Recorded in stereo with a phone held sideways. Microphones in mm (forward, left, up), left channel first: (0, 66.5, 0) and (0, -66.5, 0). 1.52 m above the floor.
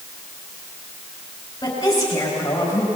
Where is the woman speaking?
30° left (ahead or behind), 5 m; by 2.9 s 25° left (ahead or behind), 6 m.